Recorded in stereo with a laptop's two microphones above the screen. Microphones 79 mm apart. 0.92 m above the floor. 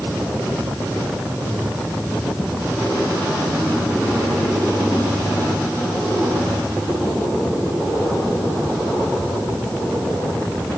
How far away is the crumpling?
I don't hear crumpling.